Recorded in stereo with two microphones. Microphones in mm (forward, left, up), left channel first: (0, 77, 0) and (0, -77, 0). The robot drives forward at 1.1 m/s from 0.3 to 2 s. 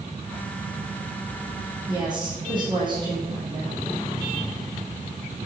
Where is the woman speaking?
30° right (ahead or behind), 6.5 m.